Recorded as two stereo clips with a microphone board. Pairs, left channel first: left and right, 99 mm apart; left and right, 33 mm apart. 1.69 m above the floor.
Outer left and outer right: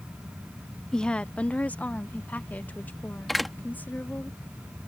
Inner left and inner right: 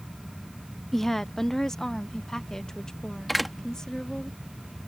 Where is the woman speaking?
5° left (ahead or behind); by 4.3 s 20° left (ahead or behind).